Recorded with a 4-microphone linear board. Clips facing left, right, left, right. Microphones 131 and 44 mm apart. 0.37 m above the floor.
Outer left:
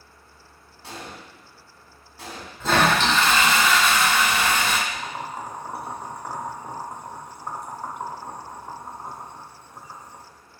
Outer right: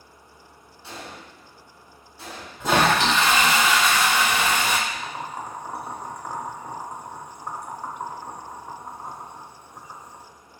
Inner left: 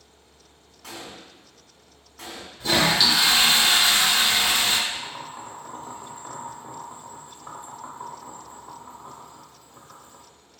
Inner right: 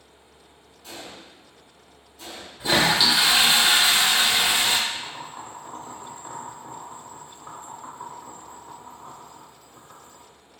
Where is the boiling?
5° left (ahead or behind), 0.7 m.